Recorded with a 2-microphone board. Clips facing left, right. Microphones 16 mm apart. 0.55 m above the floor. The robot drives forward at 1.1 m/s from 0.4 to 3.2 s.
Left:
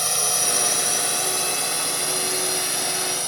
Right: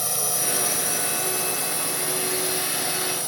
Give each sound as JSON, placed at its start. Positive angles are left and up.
{"t": 0.0, "sound": "a drone", "side_deg": 25}